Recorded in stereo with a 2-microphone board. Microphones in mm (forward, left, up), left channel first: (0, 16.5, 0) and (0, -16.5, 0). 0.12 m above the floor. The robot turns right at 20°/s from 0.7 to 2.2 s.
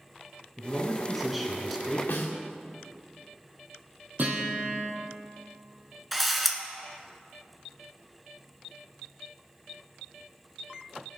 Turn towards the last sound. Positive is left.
turn(degrees=0)  # may be behind; listen again after turning